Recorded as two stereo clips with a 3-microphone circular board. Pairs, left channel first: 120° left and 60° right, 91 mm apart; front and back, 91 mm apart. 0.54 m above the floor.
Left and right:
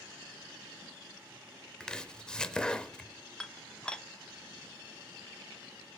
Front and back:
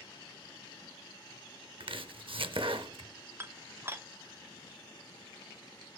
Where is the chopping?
160° right, 0.6 m.